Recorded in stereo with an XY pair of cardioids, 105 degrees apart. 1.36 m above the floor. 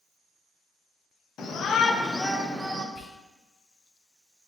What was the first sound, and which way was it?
A shout, 55° left.